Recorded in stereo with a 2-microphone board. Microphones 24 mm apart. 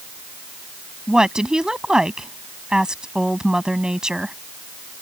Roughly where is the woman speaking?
Right.